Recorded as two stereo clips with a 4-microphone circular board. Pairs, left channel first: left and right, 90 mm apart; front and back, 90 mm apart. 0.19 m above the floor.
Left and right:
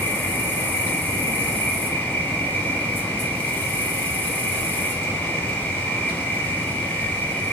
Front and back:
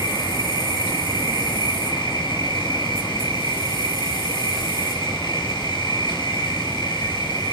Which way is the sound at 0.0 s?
20° left.